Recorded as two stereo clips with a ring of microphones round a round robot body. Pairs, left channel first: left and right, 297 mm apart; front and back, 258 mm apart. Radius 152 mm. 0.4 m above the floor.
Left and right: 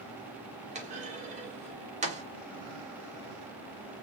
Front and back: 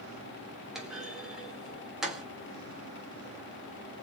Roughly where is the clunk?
Right.